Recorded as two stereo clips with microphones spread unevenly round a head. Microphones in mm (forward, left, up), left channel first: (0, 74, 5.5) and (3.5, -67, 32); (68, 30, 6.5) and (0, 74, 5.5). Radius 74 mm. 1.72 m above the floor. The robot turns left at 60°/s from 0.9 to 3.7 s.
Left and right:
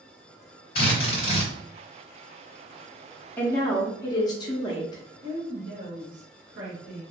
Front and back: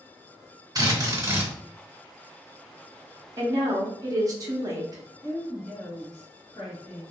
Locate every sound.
0.8 s a drill: 110° left, 1.9 m; by 1.5 s 75° left, 1.9 m
3.4 s a woman speaking: straight behind, 0.7 m; by 5.0 s 160° left, 0.7 m
5.2 s a woman speaking: 85° right, 1.2 m